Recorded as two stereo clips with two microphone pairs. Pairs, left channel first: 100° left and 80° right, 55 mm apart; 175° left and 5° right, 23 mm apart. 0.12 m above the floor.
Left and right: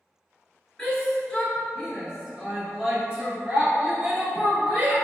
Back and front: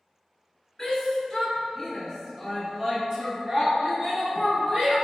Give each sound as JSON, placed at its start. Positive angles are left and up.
{"t": 0.8, "sound": "a shout", "azimuth_deg": 155, "distance_m": 1.2}